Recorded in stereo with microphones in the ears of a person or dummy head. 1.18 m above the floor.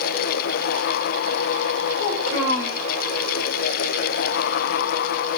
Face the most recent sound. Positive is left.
turn(degrees=90)